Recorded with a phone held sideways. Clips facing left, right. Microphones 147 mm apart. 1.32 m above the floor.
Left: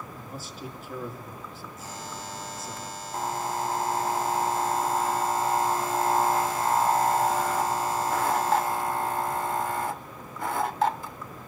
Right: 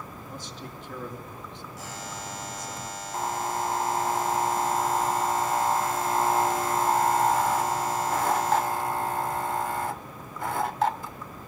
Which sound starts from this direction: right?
A buzzer, at 1.8 s.